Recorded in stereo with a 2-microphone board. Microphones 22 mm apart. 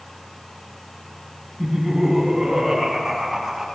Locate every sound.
1.6 s laughter: 25° right (ahead or behind), 8 m; by 3.7 s 10° right (ahead or behind), 7 m